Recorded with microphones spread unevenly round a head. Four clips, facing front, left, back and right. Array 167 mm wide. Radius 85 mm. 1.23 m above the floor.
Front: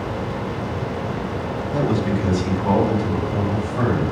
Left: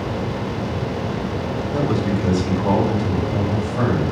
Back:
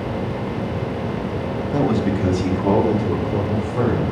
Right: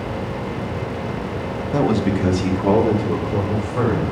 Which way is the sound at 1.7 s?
105° right.